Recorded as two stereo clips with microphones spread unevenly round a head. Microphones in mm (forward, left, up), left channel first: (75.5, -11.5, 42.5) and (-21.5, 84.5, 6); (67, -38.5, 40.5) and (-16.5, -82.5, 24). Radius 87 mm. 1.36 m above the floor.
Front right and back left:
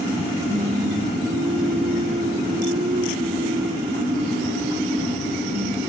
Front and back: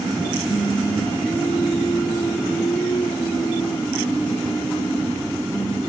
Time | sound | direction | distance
0.5 | singing | 90° left | ?